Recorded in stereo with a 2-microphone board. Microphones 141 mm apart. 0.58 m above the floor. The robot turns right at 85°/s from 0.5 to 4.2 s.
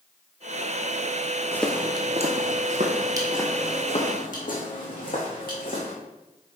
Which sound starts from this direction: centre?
Footsteps, at 1.5 s.